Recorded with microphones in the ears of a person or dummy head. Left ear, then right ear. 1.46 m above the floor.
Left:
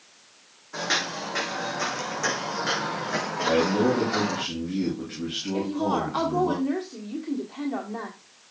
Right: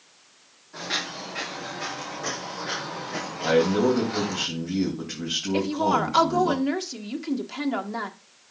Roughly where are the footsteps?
Left.